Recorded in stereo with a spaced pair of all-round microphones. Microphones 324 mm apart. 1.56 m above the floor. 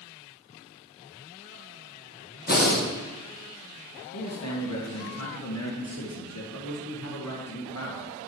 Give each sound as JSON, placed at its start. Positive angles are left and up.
{"t": 2.5, "sound": "breathing", "side_deg": 30, "distance_m": 1.1}
{"t": 4.1, "sound": "a man speaking", "side_deg": 50, "distance_m": 1.2}